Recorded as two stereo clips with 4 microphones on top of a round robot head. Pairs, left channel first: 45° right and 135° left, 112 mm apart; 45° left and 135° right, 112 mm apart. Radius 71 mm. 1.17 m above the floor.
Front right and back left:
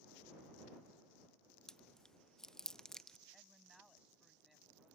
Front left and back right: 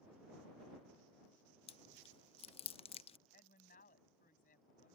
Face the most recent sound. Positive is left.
turn(degrees=45)